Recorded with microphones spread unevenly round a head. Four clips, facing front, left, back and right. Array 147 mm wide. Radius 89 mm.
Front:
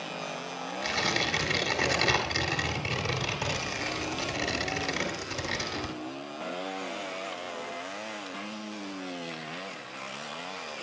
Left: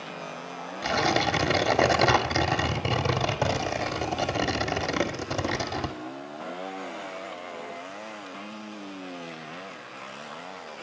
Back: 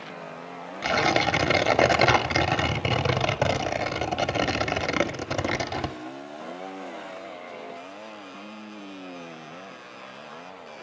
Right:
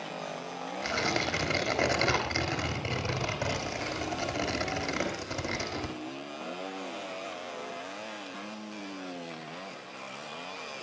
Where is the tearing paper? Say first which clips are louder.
Left 7 dB, back 9 dB; 150° left, 1.6 m.